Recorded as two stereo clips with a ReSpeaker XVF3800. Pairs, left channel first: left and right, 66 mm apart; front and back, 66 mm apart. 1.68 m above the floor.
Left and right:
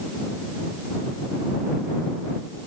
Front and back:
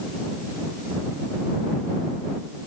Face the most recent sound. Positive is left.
No sound to turn to.